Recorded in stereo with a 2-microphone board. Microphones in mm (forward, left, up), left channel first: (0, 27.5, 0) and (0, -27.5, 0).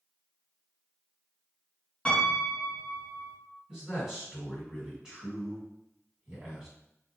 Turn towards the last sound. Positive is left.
turn(degrees=-15)  # may be behind; listen again after turning